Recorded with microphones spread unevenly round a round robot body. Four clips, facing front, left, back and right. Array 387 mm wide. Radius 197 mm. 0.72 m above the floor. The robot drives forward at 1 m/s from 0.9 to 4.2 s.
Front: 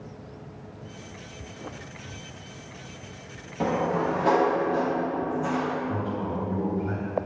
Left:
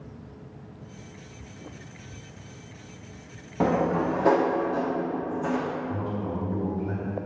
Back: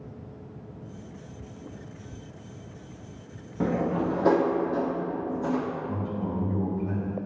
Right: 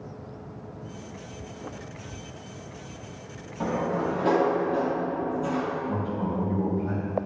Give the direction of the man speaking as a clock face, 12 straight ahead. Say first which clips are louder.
Right 2 dB, front 2 dB; 5 o'clock.